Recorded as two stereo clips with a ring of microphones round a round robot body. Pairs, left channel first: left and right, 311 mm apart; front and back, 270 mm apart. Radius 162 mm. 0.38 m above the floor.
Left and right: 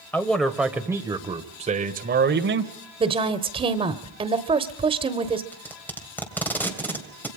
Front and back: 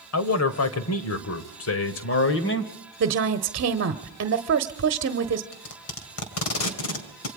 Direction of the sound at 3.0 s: 160° right.